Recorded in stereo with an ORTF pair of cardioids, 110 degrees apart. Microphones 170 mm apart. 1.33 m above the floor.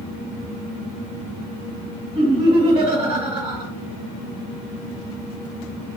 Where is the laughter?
40° right, 1.3 m.